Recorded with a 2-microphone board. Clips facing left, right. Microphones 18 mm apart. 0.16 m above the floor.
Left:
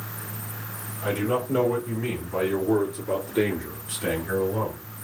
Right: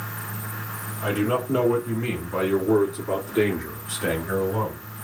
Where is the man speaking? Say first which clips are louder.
Right 2 dB; 30° right (ahead or behind), 1.9 m; by 4.9 s 15° right (ahead or behind), 1.8 m.